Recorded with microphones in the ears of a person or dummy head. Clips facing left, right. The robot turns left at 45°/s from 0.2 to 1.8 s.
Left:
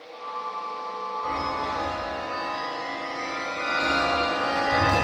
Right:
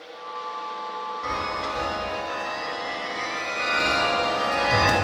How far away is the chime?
About 1.7 m.